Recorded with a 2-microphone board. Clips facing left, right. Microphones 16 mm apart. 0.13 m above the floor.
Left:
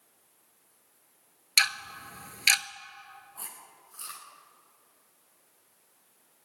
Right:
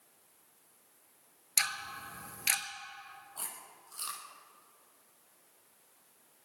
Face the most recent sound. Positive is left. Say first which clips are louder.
# right 3 dB
turn(degrees=-70)  # may be behind; listen again after turning